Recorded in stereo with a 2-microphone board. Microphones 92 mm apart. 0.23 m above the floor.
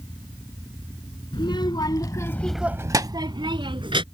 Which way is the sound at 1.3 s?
60° left (ahead or behind).